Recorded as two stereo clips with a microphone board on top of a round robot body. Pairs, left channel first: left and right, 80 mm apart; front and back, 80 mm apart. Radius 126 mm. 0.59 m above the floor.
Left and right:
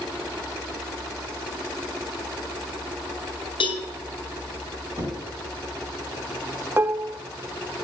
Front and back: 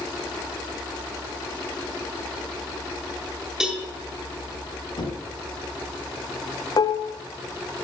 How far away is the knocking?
About 5 m.